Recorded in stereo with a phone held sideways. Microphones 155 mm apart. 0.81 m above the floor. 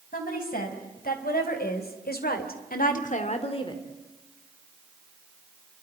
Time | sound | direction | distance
0.1 | a woman speaking | 65° left (ahead or behind) | 5 m